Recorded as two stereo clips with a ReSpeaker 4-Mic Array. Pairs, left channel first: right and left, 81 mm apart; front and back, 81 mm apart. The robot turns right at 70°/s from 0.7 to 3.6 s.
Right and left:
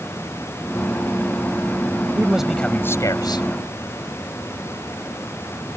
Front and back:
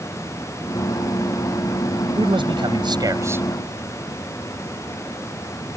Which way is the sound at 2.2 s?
155° left.